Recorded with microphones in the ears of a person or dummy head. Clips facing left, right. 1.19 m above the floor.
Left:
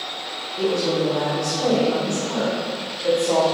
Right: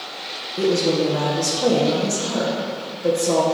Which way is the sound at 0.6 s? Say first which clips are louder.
Right 2 dB; 30° right (ahead or behind).